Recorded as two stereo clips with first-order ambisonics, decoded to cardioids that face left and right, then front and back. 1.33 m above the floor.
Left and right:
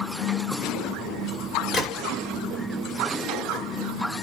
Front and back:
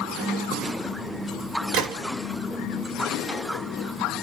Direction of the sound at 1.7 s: 160° left.